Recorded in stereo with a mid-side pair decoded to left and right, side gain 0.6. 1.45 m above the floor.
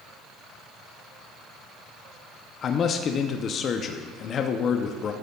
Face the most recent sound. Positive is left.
turn(degrees=45)